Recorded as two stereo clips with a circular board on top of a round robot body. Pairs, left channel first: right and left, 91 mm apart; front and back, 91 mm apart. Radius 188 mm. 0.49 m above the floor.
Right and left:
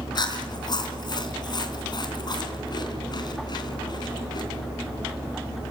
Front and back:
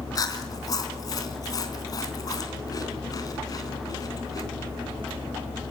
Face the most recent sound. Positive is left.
turn(degrees=-50)